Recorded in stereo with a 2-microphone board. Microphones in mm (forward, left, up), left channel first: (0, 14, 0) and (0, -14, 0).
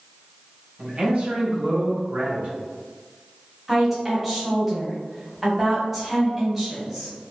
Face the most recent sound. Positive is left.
turn(degrees=-10)  # may be behind; listen again after turning